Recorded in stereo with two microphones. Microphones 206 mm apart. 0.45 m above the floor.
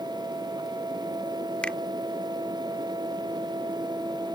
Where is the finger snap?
5° left (ahead or behind).